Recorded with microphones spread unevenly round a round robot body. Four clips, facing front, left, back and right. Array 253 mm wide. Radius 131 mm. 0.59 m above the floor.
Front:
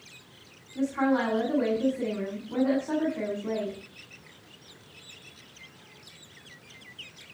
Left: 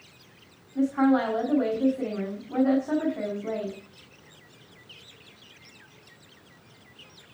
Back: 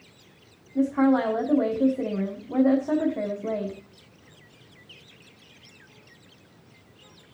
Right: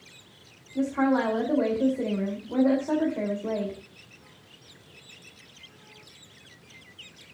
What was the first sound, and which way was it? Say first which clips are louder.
A woman speaking: left 2 dB, back 5 dB; 155° right.